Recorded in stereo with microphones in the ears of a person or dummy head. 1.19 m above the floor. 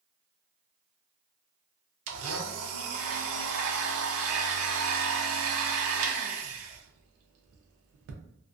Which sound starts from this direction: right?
A blender, at 2.1 s.